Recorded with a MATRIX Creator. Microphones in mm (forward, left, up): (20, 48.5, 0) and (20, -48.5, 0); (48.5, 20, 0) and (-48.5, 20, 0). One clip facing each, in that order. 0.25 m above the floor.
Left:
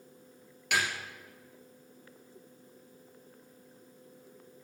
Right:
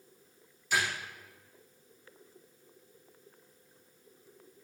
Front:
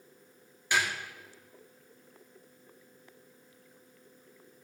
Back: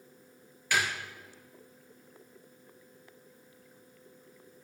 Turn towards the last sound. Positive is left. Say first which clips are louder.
# even, even
turn(degrees=70)